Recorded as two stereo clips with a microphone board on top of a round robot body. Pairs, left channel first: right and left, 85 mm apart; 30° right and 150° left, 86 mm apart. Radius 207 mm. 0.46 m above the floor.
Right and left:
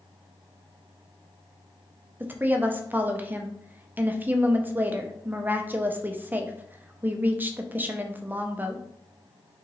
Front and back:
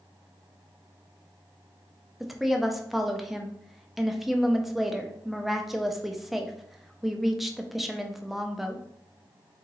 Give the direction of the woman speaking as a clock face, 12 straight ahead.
10 o'clock.